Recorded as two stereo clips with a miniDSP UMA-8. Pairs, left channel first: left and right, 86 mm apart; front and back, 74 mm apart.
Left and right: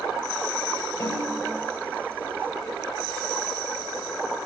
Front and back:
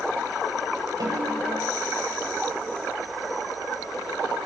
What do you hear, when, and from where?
1.0 s a snare drum: 150° left, 8.5 m